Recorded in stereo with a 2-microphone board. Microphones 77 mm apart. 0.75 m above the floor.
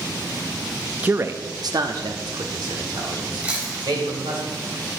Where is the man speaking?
20° right (ahead or behind), 0.5 m; by 4.4 s 80° right, 3.5 m.